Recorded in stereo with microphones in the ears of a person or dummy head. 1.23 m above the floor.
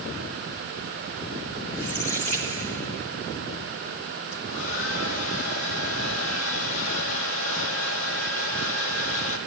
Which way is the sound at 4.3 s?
65° left (ahead or behind).